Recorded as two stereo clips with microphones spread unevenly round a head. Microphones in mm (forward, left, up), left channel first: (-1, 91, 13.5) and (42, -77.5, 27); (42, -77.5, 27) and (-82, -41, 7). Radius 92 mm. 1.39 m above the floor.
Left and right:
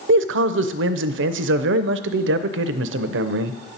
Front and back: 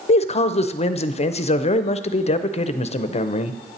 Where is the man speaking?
60° right, 0.6 m.